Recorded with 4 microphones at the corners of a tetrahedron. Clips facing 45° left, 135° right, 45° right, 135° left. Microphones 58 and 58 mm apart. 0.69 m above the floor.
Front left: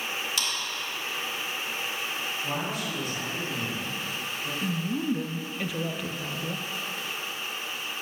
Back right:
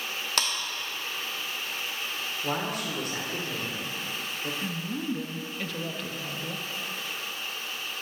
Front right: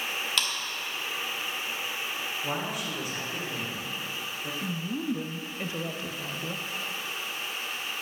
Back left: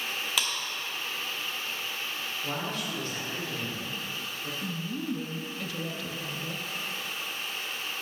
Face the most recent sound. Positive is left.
turn(degrees=-25)